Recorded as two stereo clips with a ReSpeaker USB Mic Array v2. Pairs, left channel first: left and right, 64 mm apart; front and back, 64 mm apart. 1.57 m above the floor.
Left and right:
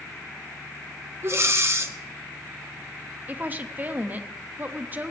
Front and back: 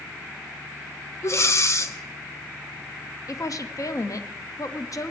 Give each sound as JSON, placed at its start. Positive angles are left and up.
{"t": 1.2, "sound": "breathing", "azimuth_deg": -45, "distance_m": 0.7}
{"t": 3.3, "sound": "a woman speaking", "azimuth_deg": -30, "distance_m": 0.6}